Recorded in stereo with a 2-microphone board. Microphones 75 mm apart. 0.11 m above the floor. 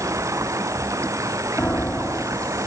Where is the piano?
25° left (ahead or behind).